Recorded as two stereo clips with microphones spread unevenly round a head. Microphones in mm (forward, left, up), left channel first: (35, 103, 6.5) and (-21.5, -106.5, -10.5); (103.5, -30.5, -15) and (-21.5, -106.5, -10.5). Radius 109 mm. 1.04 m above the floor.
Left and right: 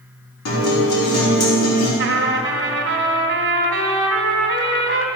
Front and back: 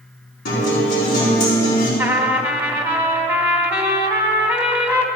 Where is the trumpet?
75° right, 1.4 m.